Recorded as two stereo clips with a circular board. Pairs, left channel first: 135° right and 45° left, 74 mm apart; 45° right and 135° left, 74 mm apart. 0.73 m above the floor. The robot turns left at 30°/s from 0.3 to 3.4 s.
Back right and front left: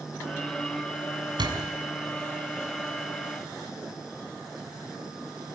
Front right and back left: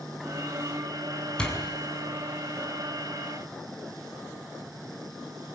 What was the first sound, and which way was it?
A door slam, 35° left.